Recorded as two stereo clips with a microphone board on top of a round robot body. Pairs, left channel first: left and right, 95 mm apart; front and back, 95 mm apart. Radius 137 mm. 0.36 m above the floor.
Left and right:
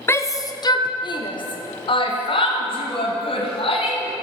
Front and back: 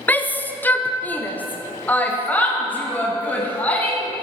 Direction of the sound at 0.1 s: 55° left.